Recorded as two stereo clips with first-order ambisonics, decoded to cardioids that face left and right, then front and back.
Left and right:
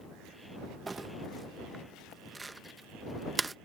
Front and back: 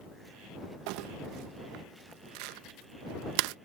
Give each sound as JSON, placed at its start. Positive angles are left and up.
{"t": 0.9, "sound": "crumpling", "azimuth_deg": -170}